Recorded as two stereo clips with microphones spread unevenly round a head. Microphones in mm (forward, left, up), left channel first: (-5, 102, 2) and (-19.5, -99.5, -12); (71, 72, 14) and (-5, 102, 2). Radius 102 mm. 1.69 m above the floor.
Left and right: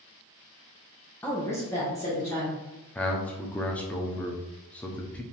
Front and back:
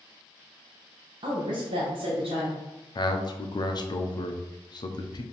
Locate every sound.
1.2 s a woman speaking: 160° left, 0.8 m
3.0 s a man speaking: 5° left, 0.7 m